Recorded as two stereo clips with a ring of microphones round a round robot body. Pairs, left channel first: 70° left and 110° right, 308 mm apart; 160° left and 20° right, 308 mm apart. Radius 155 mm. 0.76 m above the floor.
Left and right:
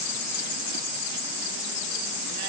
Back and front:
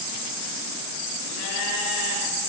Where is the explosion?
No explosion in this recording.